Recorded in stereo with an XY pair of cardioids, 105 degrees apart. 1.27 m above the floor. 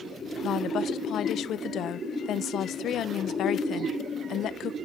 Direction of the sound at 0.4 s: 65° left.